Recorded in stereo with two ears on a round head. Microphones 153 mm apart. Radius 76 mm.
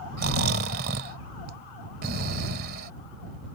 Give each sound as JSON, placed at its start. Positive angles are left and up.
{"t": 0.2, "sound": "snoring", "side_deg": -60}